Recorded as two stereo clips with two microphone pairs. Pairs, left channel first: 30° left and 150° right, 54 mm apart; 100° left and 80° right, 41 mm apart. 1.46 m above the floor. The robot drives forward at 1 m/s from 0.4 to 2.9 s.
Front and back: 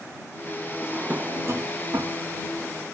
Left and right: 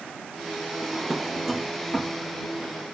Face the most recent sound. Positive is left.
turn(degrees=-175)